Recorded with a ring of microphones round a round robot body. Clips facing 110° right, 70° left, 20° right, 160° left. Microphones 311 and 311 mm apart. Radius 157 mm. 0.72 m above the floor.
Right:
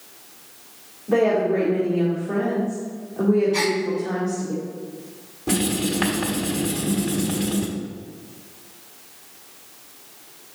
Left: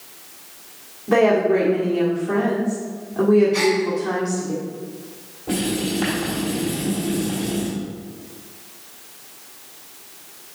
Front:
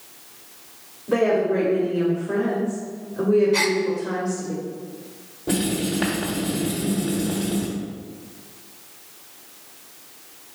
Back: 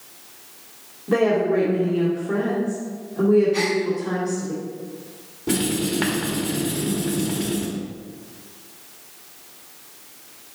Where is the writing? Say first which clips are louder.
Even, back 1 dB; 135° right, 1.4 m.